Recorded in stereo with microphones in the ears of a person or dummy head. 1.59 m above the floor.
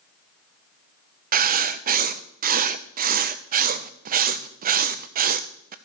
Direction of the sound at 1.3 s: 45° right (ahead or behind).